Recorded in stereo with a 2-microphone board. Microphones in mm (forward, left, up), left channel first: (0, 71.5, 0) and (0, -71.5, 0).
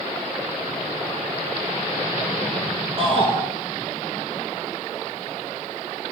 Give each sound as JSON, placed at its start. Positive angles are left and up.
{"t": 3.0, "sound": "a shout", "side_deg": -40, "distance_m": 4.5}